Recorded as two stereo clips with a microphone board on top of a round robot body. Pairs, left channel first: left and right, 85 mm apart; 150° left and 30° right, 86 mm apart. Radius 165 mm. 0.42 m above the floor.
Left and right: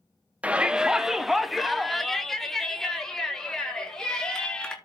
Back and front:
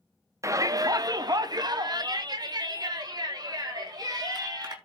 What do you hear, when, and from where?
0.4 s a shout: 25° right, 0.8 m; by 4.8 s 10° left, 3.5 m